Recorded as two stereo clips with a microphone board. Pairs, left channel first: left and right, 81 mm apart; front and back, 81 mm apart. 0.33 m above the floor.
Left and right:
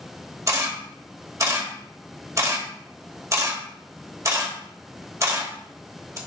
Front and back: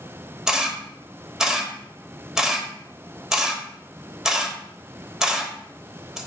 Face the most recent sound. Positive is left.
turn(degrees=-105)